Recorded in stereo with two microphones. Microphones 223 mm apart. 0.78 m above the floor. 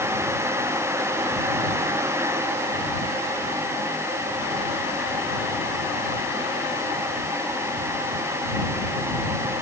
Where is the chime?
No chime in this recording.